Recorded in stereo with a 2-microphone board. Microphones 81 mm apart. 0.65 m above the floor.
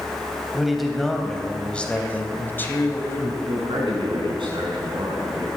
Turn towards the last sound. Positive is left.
turn(degrees=-75)  # may be behind; listen again after turning